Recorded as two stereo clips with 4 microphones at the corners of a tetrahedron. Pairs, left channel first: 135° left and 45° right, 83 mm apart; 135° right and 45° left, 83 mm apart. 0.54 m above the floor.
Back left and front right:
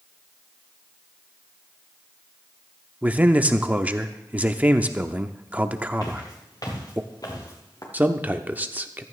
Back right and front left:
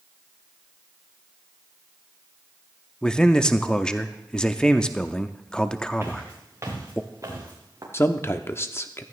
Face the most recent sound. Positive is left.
turn(degrees=-100)